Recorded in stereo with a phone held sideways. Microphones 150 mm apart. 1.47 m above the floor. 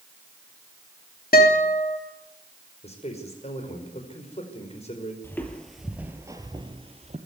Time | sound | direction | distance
1.3 | a guitar | 80° left | 3.5 m
2.8 | a man speaking | 45° left (ahead or behind) | 5 m
5.2 | footsteps | 15° left (ahead or behind) | 2.5 m